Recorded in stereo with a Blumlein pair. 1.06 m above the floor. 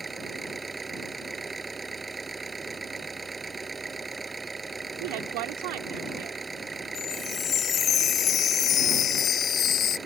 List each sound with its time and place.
0.0 s an engine running: 10° right
5.0 s a woman speaking: 45° right
7.0 s a chime: 25° left